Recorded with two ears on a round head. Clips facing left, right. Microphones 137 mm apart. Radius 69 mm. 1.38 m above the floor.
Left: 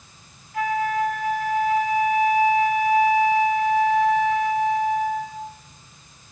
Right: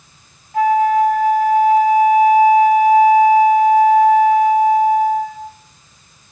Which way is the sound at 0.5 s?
40° right (ahead or behind).